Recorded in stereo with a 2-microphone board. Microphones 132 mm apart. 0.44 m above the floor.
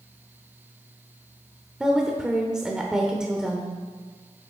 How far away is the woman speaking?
About 1.0 m.